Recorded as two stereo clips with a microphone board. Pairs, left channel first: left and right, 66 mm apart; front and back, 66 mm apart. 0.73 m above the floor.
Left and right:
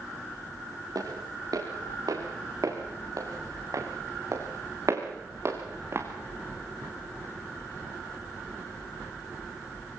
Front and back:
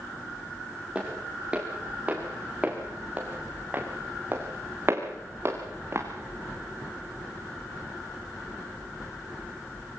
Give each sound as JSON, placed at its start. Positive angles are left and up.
{"t": 0.9, "sound": "footsteps", "azimuth_deg": -105, "distance_m": 6.5}